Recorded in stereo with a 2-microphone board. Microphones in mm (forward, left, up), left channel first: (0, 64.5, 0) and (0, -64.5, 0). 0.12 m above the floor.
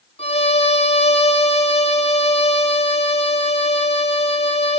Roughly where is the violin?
Left.